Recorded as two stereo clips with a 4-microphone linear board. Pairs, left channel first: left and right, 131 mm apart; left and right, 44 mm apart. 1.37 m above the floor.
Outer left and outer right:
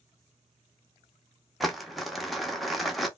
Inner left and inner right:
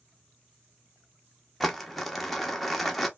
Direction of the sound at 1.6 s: Centre (ahead or behind).